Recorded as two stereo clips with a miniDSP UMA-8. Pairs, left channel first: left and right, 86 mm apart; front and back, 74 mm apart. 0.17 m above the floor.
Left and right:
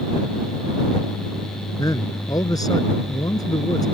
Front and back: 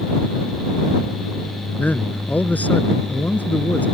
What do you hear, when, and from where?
1.8 s a man speaking: 65° left